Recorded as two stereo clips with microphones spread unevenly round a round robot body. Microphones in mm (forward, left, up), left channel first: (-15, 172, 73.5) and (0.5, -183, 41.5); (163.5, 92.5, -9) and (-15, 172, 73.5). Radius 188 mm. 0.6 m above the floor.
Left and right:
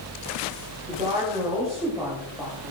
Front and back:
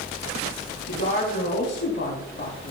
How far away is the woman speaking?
About 5 m.